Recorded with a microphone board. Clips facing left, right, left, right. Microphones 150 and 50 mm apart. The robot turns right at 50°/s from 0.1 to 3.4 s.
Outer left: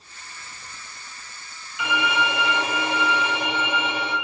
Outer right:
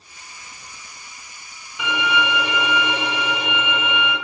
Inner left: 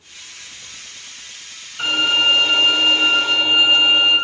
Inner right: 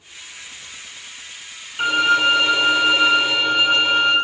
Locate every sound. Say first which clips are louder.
1.8 s a violin: outer right 2 dB, inner right 1 dB; 140° right, 2.0 m; by 4.2 s 60° right, 2.0 m